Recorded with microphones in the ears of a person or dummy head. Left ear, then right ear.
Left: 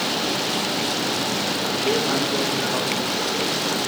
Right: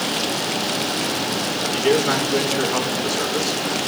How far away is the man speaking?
About 6 m.